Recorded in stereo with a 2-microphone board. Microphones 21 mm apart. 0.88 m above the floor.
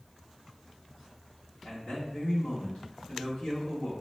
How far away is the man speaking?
About 1.6 m.